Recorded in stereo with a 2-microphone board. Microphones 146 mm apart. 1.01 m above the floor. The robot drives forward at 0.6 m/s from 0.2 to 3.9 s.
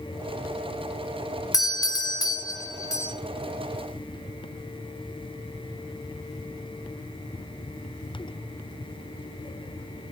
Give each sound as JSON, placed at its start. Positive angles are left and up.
{"t": 1.5, "sound": "a doorbell", "side_deg": 25, "distance_m": 0.8}